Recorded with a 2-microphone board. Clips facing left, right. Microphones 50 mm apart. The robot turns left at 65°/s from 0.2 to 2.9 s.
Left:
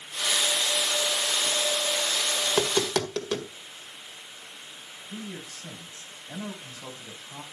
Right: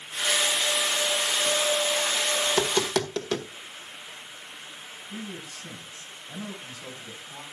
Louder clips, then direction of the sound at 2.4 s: Left 2 dB; 30° left (ahead or behind).